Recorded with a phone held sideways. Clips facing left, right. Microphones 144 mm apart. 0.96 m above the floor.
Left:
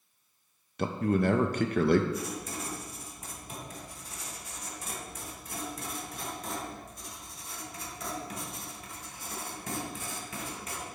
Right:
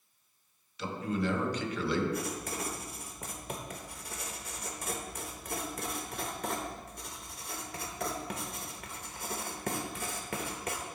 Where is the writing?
65° right (ahead or behind), 1.0 m.